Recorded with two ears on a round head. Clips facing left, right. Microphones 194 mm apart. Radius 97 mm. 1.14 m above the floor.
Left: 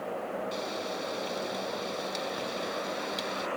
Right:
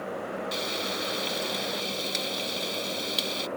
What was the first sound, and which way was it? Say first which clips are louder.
Frying: right 2 dB; 80° right.